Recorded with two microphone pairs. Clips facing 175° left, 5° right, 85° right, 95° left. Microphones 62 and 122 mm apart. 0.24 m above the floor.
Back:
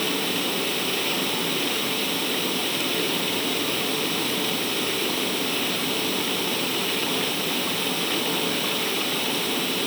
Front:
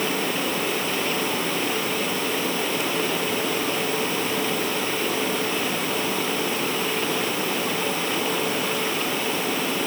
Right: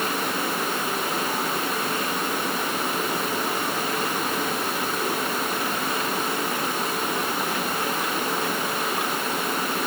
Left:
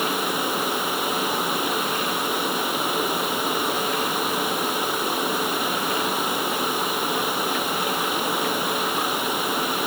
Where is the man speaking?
No man speaking in this recording.